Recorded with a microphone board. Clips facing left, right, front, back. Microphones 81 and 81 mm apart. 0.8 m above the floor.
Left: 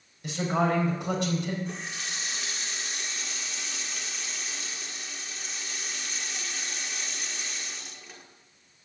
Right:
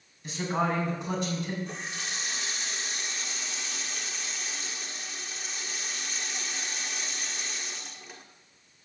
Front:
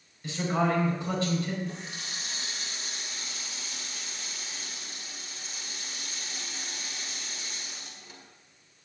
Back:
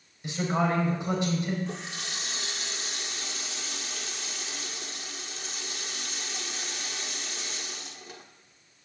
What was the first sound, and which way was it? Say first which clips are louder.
A man speaking: left 2 dB, even; 105° left.